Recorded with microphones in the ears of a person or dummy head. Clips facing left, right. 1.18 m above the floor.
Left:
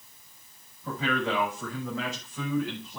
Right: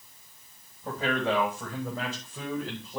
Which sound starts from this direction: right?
A man speaking, at 0.8 s.